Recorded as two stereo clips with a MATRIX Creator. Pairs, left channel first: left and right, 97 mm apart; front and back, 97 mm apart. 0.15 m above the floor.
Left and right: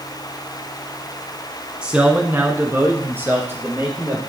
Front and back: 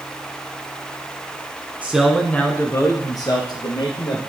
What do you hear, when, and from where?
1.8 s a man speaking: 145° right, 1.1 m; by 4.2 s 25° right, 3 m